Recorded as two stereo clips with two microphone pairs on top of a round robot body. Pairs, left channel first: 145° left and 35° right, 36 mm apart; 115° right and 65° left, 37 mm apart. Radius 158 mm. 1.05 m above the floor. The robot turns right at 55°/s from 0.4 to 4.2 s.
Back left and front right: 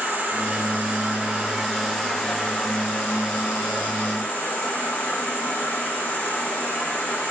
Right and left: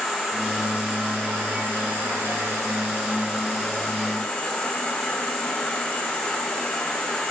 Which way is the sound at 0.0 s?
30° right.